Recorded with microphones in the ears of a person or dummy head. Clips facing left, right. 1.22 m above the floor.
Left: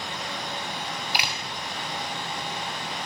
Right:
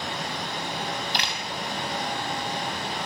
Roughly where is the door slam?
Centre.